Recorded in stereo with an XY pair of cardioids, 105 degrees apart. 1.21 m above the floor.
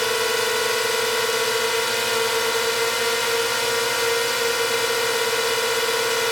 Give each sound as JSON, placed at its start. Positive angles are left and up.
{"t": 0.0, "sound": "a drone", "azimuth_deg": 10}